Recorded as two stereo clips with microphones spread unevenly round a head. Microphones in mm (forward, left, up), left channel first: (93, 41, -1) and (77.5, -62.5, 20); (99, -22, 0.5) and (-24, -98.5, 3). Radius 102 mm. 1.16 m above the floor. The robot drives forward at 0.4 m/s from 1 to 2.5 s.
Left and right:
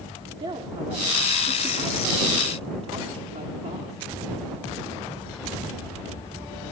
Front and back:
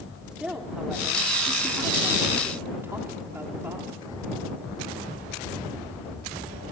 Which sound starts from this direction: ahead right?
A woman speaking, at 0.3 s.